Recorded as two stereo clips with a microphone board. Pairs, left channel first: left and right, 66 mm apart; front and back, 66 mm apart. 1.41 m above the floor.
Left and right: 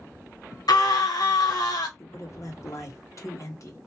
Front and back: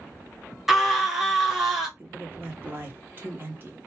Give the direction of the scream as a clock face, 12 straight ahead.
9 o'clock.